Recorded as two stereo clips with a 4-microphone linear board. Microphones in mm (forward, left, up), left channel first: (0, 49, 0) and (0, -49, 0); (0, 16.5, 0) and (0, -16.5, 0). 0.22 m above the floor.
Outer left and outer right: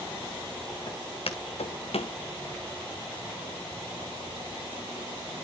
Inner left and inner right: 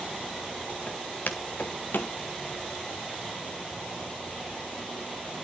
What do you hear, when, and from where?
0.9 s footsteps: 55° left (ahead or behind), 2 m; by 2.1 s 65° left (ahead or behind), 1.6 m